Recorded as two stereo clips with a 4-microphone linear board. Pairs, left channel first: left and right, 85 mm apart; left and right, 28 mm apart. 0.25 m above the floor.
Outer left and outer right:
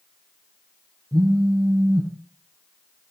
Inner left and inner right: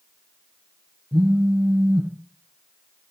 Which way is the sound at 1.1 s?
40° right (ahead or behind).